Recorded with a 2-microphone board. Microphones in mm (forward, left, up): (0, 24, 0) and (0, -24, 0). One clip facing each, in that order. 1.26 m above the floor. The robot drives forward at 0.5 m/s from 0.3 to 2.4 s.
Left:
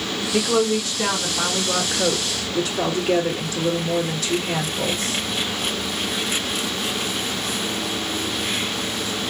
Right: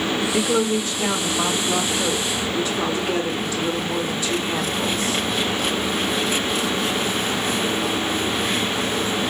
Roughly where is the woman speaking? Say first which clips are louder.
Left 3 dB; left.